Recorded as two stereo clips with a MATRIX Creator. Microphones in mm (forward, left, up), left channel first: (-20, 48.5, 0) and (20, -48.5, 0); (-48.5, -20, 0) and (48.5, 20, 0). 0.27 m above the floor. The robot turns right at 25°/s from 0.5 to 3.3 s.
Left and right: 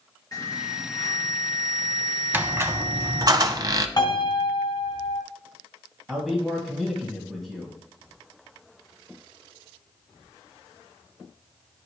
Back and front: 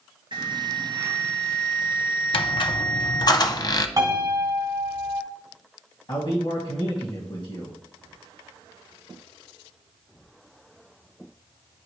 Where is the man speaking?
155° right, 1.8 m.